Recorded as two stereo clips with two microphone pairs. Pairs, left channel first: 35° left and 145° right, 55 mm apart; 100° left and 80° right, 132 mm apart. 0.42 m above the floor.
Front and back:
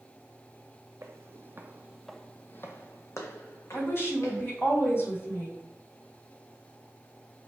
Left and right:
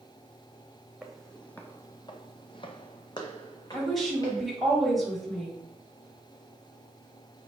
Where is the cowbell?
I don't hear a cowbell.